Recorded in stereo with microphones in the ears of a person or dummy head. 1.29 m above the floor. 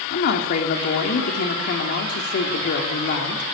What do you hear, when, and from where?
0.1 s a woman speaking: 50° left (ahead or behind), 3 m